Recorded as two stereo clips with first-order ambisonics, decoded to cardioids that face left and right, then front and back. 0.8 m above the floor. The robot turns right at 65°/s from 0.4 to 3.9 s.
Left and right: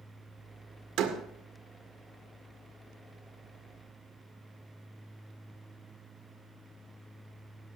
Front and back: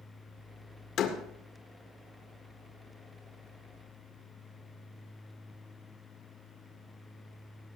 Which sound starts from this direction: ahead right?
A door slam, at 1.0 s.